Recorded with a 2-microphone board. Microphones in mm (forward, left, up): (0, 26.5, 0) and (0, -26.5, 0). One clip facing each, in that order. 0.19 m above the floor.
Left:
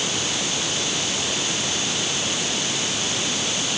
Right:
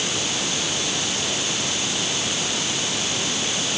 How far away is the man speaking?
I don't hear a man speaking.